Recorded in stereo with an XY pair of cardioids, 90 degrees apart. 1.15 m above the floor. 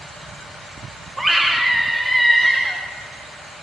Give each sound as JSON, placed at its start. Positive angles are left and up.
{"t": 1.2, "sound": "a scream", "azimuth_deg": -15, "distance_m": 0.7}